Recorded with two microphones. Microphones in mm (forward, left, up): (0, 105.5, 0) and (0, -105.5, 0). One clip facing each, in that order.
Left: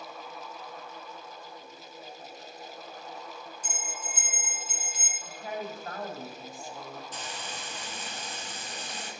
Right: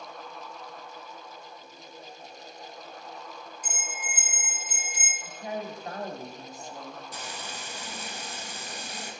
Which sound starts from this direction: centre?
Frying, at 7.1 s.